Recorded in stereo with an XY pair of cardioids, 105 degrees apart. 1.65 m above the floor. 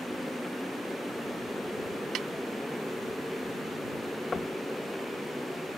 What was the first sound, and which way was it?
A motorcycle, 5° left.